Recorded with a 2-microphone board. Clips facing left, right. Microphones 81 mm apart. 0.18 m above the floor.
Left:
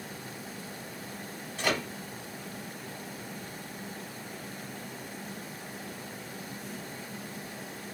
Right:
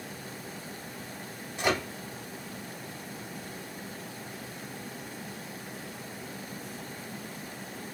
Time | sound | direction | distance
1.6 | a microwave | 15° right (ahead or behind) | 0.9 m